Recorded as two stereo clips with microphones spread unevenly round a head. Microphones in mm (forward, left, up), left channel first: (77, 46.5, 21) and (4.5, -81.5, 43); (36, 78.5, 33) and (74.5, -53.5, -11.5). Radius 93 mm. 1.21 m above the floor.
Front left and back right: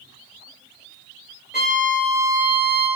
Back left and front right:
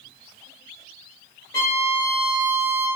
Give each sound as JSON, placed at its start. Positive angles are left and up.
{"t": 1.5, "sound": "a violin", "azimuth_deg": 160, "distance_m": 1.6}